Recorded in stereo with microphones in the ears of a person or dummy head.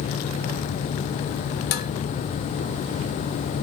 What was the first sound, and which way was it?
Dishes clattering, 65° left (ahead or behind).